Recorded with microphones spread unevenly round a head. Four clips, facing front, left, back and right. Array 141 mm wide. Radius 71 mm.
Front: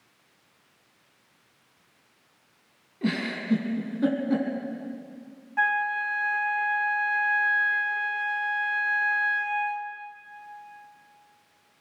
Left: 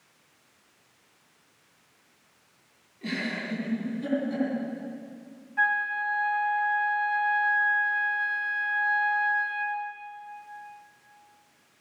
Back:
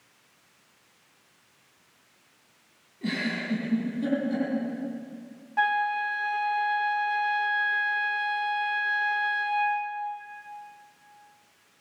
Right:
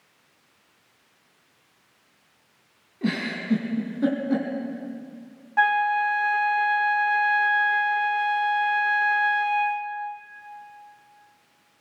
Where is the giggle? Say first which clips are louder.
Right 5 dB, front 2 dB; 50° right, 4.5 m.